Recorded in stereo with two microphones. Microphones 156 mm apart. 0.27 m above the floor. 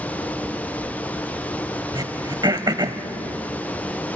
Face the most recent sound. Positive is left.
turn(degrees=-30)  # may be behind; listen again after turning